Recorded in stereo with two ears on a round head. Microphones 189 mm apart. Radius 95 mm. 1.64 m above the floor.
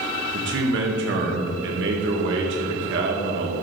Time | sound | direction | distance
0.3 | a man speaking | 55° right (ahead or behind) | 2 m